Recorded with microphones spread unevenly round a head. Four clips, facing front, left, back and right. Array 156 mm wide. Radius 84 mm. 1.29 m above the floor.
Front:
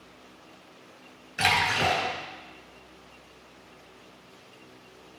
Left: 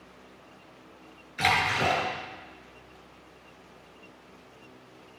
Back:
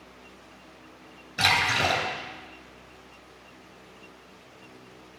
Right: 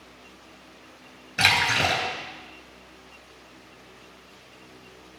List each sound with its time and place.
1.4 s a splash: 120° right, 4 m